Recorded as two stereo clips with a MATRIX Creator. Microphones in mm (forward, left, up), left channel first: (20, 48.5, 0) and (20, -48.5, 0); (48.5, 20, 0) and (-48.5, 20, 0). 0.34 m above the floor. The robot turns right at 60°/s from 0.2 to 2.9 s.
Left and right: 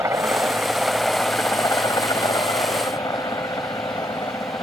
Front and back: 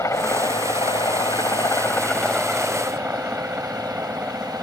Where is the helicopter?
45° right; by 4.6 s 115° left.